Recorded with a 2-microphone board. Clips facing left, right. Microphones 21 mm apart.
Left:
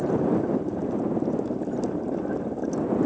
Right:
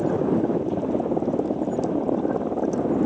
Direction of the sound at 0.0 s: 65° right (ahead or behind).